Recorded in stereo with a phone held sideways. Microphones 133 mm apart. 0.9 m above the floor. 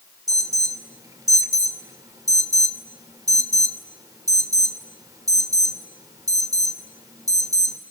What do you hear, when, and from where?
0.3 s an alarm: 25° right (ahead or behind), 2.5 m